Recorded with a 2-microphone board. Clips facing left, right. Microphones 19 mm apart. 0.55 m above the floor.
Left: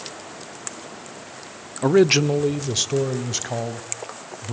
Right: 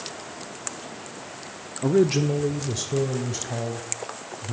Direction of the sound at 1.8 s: 40° left (ahead or behind).